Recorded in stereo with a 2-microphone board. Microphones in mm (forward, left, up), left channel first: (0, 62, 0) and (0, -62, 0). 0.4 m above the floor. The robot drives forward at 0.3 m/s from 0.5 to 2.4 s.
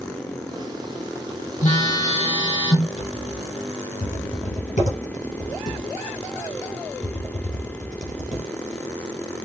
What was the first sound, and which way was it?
A phone buzzing, 70° left (ahead or behind).